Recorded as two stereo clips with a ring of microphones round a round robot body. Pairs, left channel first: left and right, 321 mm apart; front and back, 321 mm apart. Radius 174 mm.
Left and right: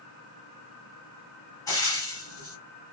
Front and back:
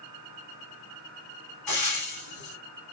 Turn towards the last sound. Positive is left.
turn(degrees=15)